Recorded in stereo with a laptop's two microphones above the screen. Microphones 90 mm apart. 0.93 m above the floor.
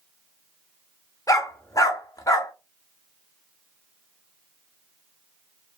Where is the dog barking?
40° left (ahead or behind), 0.7 m.